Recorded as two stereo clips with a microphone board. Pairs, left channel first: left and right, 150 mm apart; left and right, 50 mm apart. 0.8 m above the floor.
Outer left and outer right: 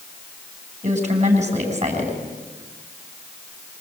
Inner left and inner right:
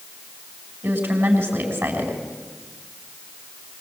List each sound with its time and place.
0.8 s a woman speaking: 45° right (ahead or behind), 6 m